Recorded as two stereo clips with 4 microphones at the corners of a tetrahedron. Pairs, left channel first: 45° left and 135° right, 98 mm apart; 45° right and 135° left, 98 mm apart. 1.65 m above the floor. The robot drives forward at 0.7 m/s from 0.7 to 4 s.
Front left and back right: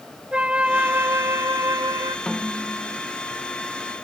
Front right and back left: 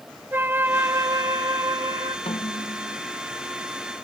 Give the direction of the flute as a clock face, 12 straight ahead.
6 o'clock.